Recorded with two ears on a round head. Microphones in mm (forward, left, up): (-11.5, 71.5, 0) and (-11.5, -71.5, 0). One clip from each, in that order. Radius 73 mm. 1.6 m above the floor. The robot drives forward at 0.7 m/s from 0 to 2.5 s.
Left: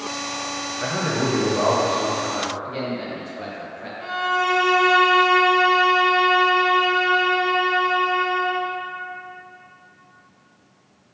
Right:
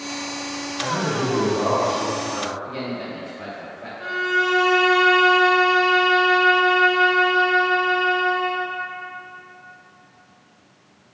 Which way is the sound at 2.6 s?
10° left (ahead or behind).